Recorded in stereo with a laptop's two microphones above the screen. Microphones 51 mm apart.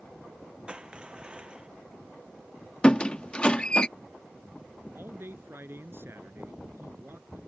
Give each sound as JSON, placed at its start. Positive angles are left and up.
{"t": 0.7, "sound": "crushing", "side_deg": -20}
{"t": 2.8, "sound": "a squeak", "side_deg": 20}
{"t": 4.9, "sound": "a man speaking", "side_deg": -50}